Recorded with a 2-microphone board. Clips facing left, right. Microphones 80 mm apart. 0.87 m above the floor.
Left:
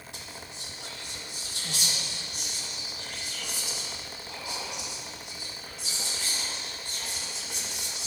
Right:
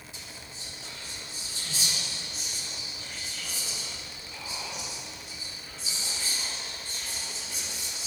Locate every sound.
0.1 s whispering: 65° left (ahead or behind), 1.1 m